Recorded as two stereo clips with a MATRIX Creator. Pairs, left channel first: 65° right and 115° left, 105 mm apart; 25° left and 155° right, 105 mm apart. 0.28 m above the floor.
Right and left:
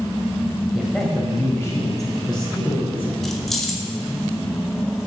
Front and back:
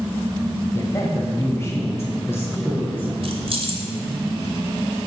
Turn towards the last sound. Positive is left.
turn(degrees=-155)